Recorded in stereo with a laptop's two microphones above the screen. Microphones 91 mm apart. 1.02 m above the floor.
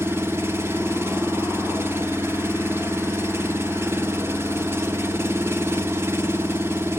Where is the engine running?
25° right (ahead or behind), 1.0 m.